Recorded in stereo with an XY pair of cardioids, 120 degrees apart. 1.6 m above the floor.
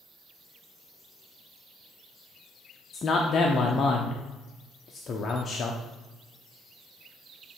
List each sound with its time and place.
2.9 s a man speaking: 35° left, 0.8 m